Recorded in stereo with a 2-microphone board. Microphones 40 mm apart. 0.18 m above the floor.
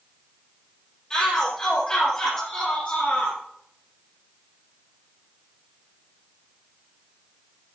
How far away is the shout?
About 3.5 m.